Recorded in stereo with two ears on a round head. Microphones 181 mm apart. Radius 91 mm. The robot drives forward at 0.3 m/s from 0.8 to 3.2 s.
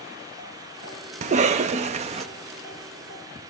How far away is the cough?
About 0.7 m.